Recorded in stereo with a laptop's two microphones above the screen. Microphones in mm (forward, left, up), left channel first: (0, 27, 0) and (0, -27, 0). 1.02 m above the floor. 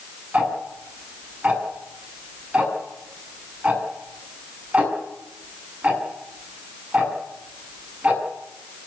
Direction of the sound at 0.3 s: 25° right (ahead or behind).